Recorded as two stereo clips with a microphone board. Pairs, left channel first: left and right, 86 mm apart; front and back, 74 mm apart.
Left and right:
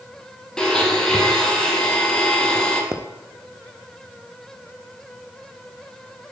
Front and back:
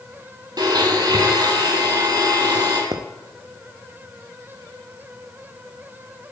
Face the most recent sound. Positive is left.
turn(degrees=-150)